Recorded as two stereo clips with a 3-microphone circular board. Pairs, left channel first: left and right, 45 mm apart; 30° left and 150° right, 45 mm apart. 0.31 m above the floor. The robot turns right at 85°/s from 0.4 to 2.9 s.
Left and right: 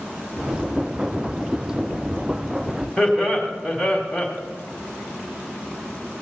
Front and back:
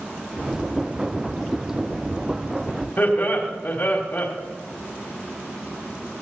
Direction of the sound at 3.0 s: Straight ahead.